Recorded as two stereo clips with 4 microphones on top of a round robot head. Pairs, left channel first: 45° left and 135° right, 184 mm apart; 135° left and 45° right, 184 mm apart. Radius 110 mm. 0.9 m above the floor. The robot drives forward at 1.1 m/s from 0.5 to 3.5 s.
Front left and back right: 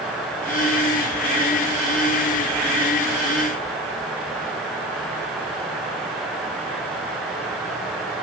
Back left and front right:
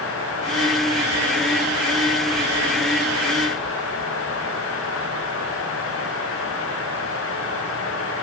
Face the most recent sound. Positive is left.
No sound to turn to.